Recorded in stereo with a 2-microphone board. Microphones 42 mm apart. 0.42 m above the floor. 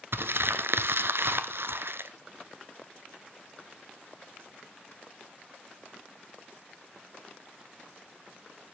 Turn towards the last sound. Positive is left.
turn(degrees=-65)  # may be behind; listen again after turning